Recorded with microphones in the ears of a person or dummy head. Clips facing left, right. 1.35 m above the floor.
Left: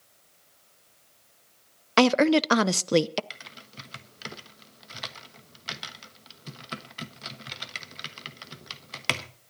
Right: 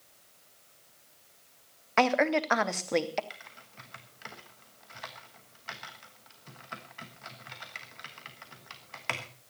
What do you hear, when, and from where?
2.0 s a woman speaking: 45° left (ahead or behind), 0.5 m
3.3 s typing on a keyboard: 45° left (ahead or behind), 1.1 m